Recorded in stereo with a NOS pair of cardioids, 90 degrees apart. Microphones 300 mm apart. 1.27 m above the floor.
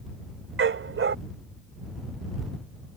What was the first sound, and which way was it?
A dog barking, 45° right.